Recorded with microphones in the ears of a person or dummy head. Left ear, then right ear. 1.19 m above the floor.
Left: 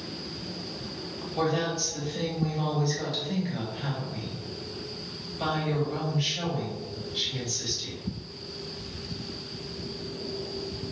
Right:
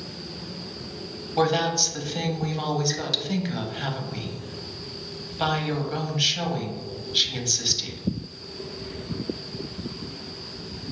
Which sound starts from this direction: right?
A woman speaking, at 1.4 s.